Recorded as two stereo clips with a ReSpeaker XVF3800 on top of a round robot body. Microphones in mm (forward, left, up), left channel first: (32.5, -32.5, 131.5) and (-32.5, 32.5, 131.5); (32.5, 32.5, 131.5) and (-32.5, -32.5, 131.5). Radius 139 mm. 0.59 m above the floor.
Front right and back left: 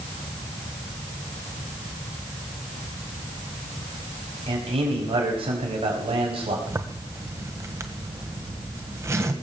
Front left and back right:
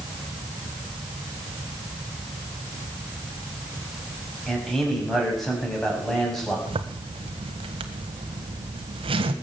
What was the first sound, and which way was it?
A man speaking, 130° left.